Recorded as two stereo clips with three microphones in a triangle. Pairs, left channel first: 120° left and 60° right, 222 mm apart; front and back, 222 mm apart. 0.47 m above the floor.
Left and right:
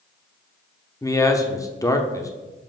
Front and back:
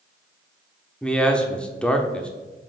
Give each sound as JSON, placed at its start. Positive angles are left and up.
{"t": 1.0, "sound": "a man speaking", "azimuth_deg": 75, "distance_m": 0.9}